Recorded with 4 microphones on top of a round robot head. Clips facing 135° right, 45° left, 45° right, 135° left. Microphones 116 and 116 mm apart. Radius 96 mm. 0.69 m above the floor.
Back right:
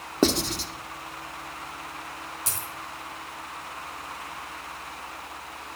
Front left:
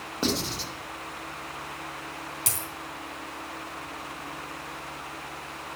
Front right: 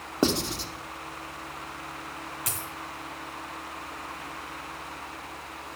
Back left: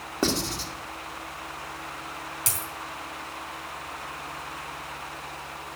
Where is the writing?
110° right, 1.6 m.